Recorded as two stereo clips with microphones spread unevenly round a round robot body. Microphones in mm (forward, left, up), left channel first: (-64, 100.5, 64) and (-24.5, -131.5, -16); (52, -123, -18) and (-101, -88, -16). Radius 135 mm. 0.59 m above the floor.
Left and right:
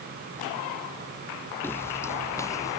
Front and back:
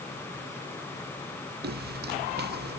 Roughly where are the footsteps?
Behind.